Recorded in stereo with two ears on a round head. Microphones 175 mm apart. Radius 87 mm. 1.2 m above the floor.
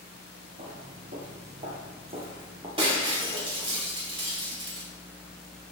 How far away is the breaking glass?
About 3 m.